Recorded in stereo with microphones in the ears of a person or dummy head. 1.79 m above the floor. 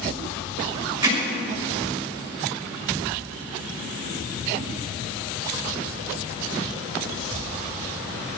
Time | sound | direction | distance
1.0 | hammering | 20° right (ahead or behind) | 6 m